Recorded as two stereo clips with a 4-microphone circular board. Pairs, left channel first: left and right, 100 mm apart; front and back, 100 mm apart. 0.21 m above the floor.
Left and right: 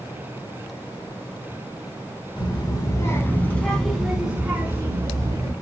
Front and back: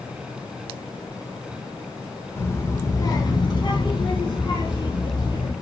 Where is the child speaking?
60° left, 1.0 m; by 5.5 s 35° right, 1.4 m.